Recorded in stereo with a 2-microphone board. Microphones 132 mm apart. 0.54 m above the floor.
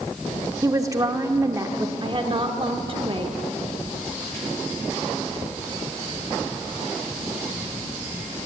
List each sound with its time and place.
0.6 s a woman speaking: 25° right (ahead or behind), 0.9 m
2.0 s a woman speaking: 40° right (ahead or behind), 1.1 m